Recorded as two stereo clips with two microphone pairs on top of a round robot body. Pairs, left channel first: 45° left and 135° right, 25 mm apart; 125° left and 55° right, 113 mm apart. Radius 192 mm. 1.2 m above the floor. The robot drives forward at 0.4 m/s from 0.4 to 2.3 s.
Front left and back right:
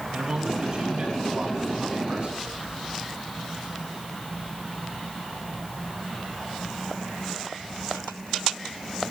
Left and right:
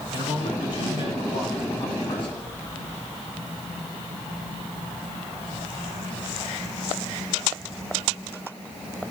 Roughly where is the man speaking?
Behind.